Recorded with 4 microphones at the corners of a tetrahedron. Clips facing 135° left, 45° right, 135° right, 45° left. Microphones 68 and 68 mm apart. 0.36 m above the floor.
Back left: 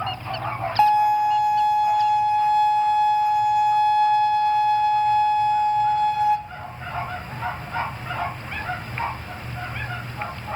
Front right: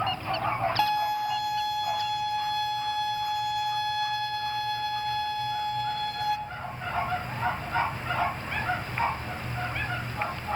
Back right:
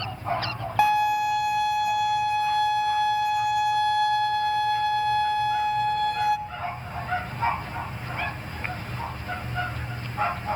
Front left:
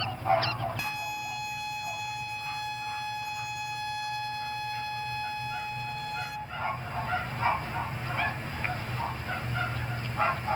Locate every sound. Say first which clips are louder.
0.8 s a violin: back left 13 dB, back right 14 dB; 160° right, 0.7 m